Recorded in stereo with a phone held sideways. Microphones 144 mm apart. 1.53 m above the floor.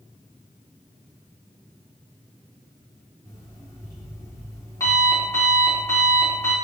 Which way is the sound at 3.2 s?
20° left (ahead or behind).